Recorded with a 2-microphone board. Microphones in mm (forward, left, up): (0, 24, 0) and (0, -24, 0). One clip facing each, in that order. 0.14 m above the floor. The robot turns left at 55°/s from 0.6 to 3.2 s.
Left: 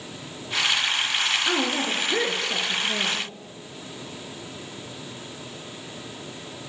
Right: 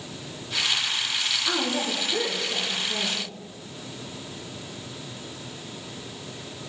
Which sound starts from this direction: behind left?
A woman speaking, at 1.4 s.